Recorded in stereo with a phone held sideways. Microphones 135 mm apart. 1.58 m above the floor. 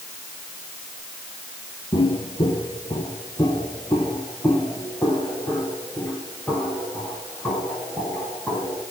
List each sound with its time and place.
1.9 s footsteps: 40° left (ahead or behind), 2.0 m; by 8.8 s 5° left (ahead or behind), 11 m